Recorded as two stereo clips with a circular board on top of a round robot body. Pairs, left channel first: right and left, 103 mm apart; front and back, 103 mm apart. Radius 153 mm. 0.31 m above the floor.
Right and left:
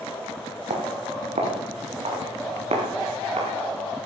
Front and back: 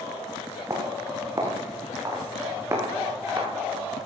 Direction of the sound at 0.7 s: 115° left.